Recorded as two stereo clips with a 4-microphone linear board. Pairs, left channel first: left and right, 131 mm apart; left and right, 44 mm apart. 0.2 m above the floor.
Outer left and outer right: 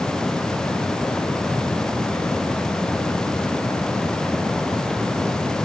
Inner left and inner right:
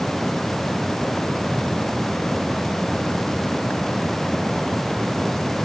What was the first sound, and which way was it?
Only background noise.